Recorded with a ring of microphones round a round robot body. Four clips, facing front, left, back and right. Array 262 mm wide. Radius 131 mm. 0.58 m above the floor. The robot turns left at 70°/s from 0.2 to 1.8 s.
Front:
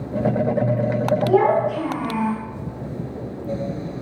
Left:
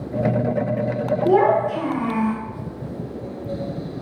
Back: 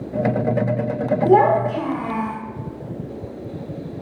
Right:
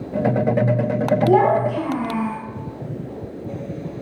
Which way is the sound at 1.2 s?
165° left.